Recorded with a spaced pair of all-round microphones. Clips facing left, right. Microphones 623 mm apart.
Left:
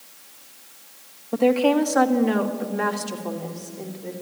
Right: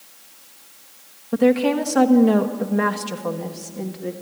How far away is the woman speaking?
About 1.5 m.